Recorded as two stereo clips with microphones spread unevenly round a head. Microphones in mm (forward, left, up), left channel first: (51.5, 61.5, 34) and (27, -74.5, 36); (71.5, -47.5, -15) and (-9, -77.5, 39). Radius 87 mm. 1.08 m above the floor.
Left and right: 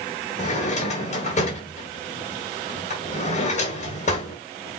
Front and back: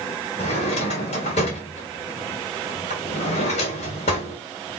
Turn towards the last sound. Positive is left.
turn(degrees=45)